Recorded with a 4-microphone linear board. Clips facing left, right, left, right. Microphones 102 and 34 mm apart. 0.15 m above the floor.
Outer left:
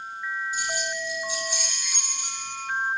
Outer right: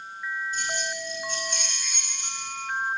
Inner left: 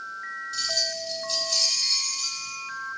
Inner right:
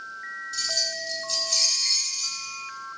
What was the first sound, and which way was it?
Keys jangling, 10° left (ahead or behind).